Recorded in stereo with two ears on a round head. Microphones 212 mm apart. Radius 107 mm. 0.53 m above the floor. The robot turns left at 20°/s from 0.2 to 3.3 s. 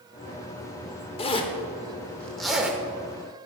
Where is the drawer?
I don't hear a drawer.